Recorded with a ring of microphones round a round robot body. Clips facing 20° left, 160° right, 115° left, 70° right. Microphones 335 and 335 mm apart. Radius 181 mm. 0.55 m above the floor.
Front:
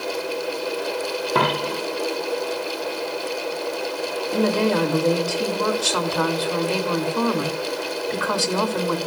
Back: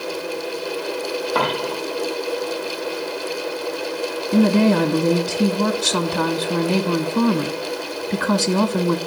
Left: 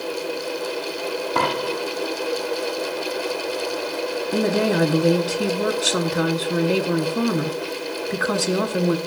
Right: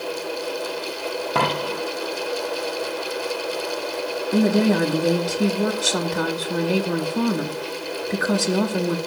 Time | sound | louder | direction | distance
1.4 | a dropped coin | front 2 dB, even | 35° right | 2 m
4.3 | a woman speaking | back 5 dB, right 3 dB | 155° right | 1.3 m